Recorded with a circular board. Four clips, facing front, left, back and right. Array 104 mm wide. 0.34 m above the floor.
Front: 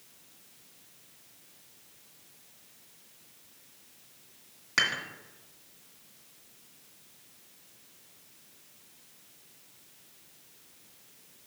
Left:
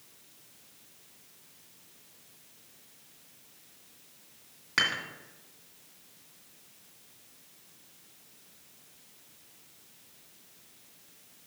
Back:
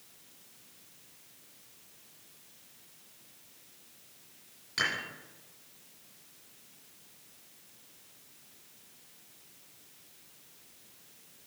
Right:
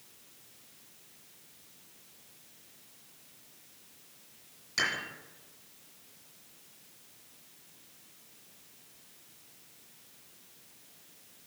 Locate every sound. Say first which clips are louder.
4.8 s dishes clattering: left 2 dB, front 3 dB; 45° left, 2.5 m